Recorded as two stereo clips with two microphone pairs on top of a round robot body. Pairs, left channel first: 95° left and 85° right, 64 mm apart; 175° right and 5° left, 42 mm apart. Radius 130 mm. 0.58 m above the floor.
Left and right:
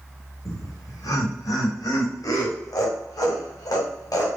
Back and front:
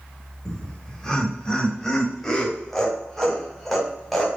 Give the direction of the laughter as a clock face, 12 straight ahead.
8 o'clock.